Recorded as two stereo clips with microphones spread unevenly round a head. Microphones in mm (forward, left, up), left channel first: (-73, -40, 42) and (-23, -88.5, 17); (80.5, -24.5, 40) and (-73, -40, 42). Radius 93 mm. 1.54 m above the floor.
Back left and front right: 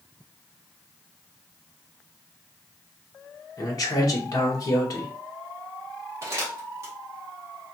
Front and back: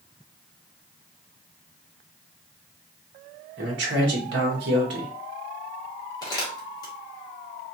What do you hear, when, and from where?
3.6 s a man speaking: 165° left, 0.9 m
6.2 s crumpling: 15° left, 0.7 m